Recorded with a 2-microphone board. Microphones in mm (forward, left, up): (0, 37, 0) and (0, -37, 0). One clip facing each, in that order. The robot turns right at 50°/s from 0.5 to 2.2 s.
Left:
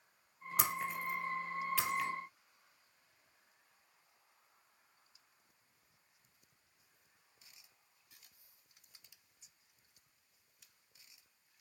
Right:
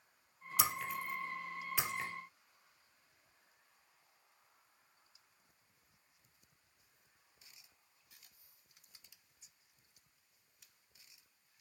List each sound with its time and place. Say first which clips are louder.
0.6 s breaking glass: even; 40° left (ahead or behind), 1.9 m; by 2.1 s 35° right (ahead or behind), 1.9 m